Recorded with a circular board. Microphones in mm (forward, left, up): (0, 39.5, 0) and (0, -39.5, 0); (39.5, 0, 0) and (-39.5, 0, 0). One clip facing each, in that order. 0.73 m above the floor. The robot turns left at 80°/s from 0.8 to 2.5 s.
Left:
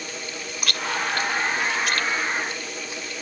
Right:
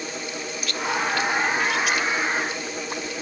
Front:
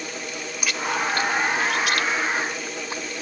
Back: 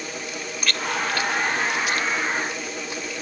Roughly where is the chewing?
Left.